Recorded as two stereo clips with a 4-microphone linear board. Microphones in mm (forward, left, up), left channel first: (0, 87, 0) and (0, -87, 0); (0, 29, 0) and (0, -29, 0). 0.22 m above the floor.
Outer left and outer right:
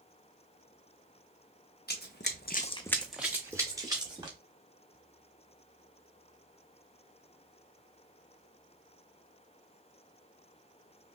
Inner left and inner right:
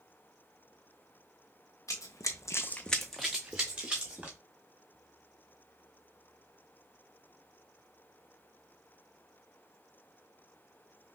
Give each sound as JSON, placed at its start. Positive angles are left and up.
{"t": 1.9, "sound": "running footsteps", "side_deg": 65, "distance_m": 1.1}